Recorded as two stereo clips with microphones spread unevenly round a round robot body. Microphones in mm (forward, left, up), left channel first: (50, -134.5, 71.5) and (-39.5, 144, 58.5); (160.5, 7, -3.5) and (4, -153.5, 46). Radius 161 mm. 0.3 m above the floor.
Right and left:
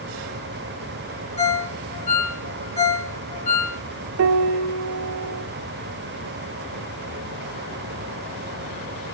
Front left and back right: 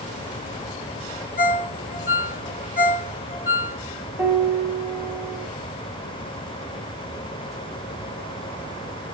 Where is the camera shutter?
No camera shutter in this recording.